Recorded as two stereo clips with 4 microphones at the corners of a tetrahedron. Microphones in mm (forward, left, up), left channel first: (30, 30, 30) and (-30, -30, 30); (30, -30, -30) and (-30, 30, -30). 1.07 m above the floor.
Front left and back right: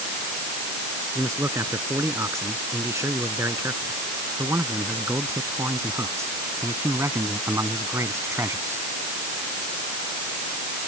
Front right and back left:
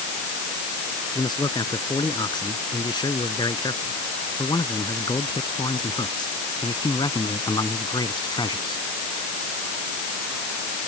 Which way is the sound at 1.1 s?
80° right.